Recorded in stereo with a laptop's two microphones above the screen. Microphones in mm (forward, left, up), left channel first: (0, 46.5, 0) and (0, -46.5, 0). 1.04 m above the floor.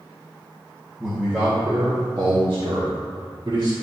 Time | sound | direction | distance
1.0 | a man speaking | 15° right (ahead or behind) | 2.0 m